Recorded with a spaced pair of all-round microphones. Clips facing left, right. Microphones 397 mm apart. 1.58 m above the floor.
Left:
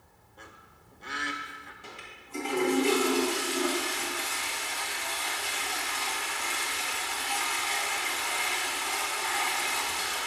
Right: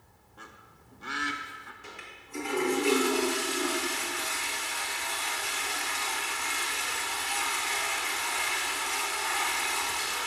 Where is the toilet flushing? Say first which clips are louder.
Even; 50° left (ahead or behind), 1.8 m.